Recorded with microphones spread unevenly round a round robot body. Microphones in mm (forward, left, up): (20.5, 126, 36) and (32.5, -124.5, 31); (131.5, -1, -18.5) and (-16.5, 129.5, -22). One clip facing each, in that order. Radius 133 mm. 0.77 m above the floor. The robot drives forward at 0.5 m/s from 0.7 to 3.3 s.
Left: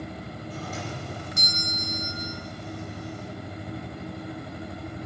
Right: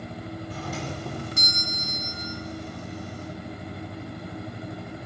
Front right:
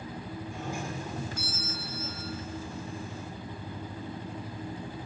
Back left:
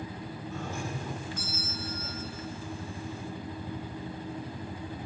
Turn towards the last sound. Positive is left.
turn(degrees=-130)